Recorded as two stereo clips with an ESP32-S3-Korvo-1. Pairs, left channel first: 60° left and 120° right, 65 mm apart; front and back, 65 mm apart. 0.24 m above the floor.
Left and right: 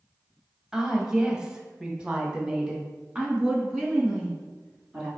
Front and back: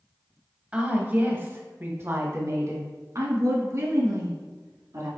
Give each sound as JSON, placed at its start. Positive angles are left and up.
{"t": 0.7, "sound": "a woman speaking", "azimuth_deg": -175, "distance_m": 1.2}